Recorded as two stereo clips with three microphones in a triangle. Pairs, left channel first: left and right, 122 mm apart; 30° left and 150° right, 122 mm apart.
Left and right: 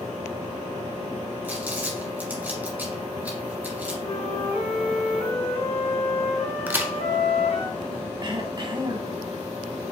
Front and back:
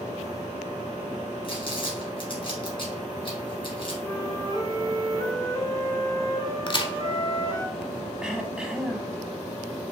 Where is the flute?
80° left, 1.2 m.